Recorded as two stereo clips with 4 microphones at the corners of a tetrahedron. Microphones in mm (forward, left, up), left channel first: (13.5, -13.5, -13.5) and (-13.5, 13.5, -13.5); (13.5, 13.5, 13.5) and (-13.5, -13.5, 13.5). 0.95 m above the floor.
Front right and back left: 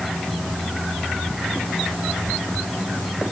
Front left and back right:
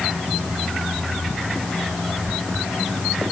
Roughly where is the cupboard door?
I don't hear a cupboard door.